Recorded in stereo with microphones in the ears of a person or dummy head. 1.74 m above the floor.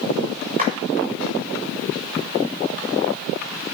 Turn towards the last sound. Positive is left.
turn(degrees=-45)  # may be behind; listen again after turning